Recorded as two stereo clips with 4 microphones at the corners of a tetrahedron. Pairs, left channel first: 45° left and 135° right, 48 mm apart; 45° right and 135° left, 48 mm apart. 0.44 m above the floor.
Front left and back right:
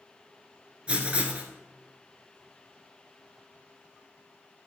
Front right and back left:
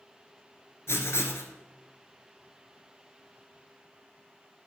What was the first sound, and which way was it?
Writing, 70° right.